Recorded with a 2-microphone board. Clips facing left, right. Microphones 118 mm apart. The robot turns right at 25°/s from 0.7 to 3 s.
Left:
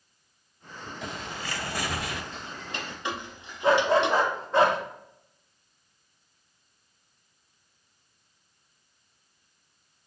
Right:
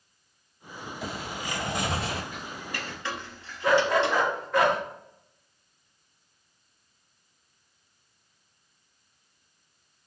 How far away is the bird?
About 0.8 m.